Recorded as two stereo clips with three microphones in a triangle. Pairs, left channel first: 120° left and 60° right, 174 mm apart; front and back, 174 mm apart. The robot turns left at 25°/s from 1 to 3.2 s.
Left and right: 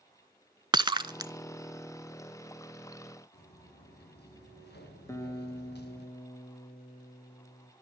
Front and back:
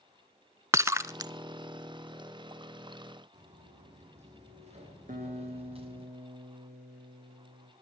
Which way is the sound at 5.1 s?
170° right.